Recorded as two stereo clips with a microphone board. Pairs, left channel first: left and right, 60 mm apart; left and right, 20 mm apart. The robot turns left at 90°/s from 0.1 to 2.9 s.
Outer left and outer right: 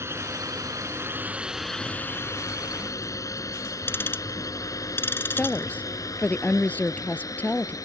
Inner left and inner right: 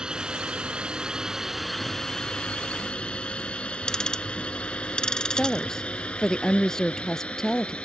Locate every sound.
0.0 s a drone: 50° right (ahead or behind); by 7.9 s 75° left (ahead or behind)
3.9 s ticking: 40° left (ahead or behind)
5.3 s a woman speaking: 25° left (ahead or behind)